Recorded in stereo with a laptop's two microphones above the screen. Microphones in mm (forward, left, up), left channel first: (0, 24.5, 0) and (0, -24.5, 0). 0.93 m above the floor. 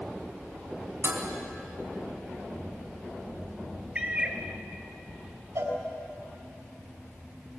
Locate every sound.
1.0 s dishes clattering: 60° right (ahead or behind), 4 m
4.0 s a cat meowing: 25° right (ahead or behind), 3 m
5.5 s a cowbell: 80° right, 4.5 m